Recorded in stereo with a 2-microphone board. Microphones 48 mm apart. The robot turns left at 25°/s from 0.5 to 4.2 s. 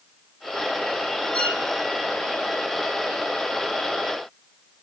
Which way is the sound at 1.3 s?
25° left (ahead or behind).